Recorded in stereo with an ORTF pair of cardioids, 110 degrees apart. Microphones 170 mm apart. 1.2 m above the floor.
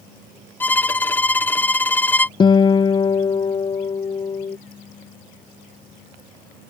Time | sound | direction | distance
0.6 | a violin | 10° left | ?
2.4 | a guitar | 30° left | ?